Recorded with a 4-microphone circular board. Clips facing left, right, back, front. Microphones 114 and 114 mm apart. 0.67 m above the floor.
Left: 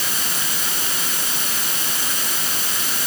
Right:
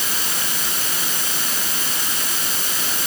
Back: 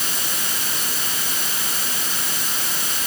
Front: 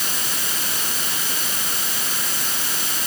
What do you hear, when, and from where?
Only background noise.